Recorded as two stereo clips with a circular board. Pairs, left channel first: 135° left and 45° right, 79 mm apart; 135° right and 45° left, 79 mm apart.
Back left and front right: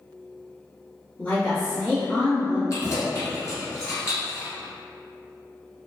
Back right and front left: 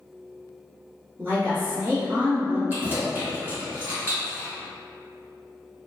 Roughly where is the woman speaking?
Left.